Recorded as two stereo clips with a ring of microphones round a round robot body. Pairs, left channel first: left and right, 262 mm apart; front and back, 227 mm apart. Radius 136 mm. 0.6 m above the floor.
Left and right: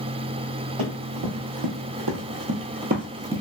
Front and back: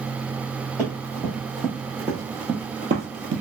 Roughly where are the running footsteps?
Right.